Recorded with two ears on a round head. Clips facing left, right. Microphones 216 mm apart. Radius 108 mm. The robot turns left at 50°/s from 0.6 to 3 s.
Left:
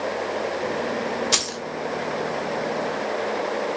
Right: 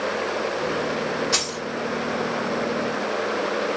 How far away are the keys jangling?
About 1.2 m.